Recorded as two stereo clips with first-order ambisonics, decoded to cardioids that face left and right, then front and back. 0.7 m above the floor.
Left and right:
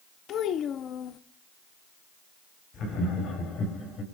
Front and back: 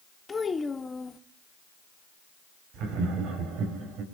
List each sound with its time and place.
0.3 s a child speaking: 70° left, 0.6 m
2.7 s laughter: 140° left, 4.5 m